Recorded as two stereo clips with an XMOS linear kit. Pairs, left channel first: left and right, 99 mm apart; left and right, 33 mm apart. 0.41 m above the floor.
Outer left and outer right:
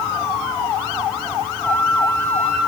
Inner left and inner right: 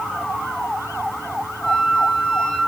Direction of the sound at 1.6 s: 20° left (ahead or behind).